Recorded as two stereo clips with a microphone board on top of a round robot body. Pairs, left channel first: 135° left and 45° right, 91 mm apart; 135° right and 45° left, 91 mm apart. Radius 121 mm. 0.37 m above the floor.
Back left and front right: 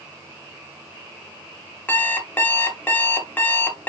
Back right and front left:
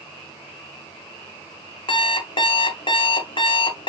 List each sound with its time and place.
1.9 s an alarm clock: 155° right, 1.6 m